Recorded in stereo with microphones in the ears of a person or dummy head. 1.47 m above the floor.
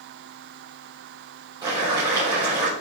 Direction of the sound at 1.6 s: 15° right (ahead or behind).